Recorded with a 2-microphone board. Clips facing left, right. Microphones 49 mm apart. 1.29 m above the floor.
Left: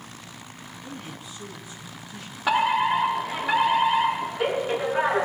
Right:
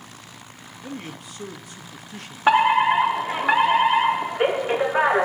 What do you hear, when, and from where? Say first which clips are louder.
0.8 s a man speaking: right 5 dB; 60° right (ahead or behind), 1.3 m
2.5 s a fire alarm: right 5 dB; 35° right (ahead or behind), 1.4 m